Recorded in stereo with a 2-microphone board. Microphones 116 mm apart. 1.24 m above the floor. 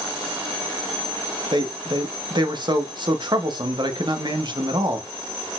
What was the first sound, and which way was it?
A man speaking, 45° right (ahead or behind).